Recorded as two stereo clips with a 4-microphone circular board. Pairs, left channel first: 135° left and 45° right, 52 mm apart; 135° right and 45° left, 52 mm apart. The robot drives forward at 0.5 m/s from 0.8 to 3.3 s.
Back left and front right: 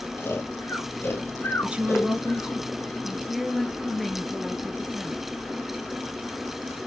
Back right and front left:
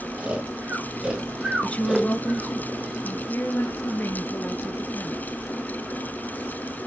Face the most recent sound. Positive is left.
turn(degrees=-135)